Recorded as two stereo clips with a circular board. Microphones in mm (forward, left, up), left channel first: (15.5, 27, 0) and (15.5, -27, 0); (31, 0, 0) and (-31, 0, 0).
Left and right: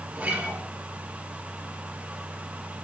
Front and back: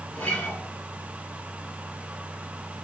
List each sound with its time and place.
0.1 s a guitar: 50° right, 1.0 m